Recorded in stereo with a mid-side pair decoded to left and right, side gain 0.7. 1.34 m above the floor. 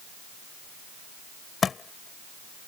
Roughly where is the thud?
Ahead left.